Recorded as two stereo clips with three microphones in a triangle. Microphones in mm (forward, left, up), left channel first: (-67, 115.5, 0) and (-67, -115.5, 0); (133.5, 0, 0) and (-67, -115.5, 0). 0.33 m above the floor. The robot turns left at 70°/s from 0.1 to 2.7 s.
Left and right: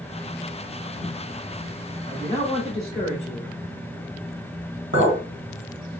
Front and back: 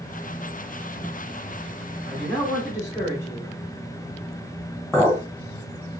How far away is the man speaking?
About 1.0 m.